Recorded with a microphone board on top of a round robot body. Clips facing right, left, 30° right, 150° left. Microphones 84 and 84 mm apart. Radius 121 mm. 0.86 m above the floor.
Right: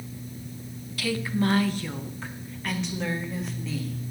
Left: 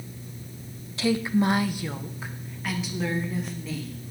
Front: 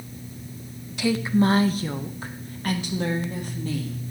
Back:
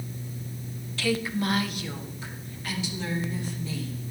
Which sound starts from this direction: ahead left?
A woman speaking, at 1.0 s.